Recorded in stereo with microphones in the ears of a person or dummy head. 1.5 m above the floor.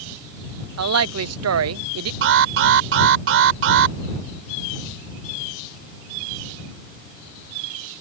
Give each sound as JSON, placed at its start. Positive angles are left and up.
{"t": 0.8, "sound": "a woman speaking", "side_deg": -75}
{"t": 2.2, "sound": "an alarm", "side_deg": -75}